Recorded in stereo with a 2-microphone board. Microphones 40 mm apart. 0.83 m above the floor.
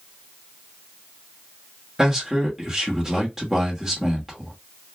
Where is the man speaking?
10° right (ahead or behind), 1.2 m.